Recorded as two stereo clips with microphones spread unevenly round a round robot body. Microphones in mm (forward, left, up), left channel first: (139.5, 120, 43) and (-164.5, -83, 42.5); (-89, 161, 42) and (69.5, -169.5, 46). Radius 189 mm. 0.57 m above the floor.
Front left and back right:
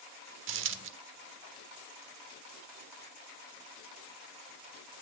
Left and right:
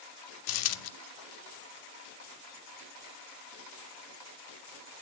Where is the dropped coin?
160° left, 0.5 m.